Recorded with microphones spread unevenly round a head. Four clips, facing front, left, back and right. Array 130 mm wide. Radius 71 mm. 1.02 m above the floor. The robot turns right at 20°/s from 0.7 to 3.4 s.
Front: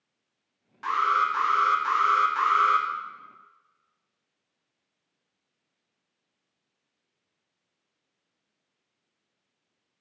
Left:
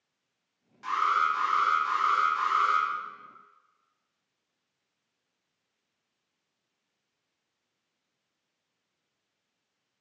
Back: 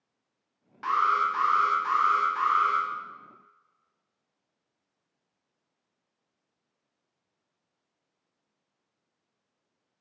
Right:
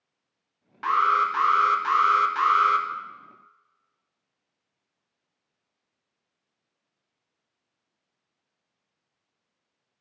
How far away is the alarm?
About 1.3 m.